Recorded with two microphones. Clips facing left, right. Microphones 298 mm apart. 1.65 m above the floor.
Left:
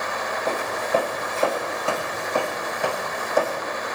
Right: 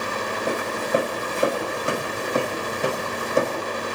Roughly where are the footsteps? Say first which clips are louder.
Right 1 dB; centre.